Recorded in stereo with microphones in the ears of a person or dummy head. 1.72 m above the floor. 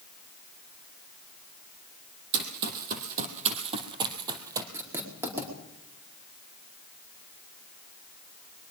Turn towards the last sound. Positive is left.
turn(degrees=-10)  # may be behind; listen again after turning